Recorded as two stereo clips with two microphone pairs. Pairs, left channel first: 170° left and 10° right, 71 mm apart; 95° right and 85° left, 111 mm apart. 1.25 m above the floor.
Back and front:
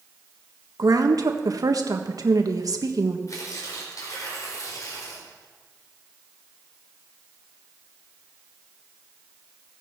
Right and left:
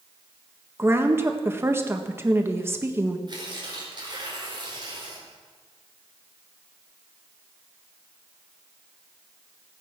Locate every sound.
0.8 s a woman speaking: 20° left, 1.4 m
3.3 s tearing paper: 130° left, 4.5 m